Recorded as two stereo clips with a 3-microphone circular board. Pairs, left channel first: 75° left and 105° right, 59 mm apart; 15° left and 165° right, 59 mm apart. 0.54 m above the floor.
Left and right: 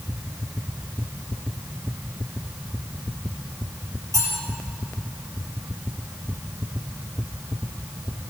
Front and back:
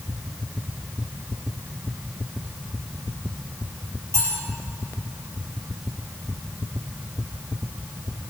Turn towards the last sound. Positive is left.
turn(degrees=-125)